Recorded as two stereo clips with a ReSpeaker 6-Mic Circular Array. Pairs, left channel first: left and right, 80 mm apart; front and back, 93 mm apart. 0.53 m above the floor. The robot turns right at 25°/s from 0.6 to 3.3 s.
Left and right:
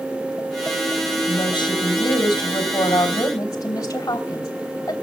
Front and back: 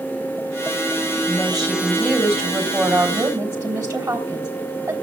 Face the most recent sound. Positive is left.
turn(degrees=135)